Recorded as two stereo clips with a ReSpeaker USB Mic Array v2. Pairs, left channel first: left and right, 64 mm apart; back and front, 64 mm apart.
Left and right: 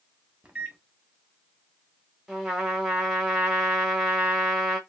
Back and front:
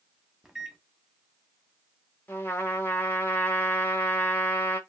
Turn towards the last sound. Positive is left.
turn(degrees=-160)